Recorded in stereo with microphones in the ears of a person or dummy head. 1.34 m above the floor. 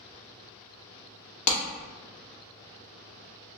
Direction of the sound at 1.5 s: 75° left (ahead or behind).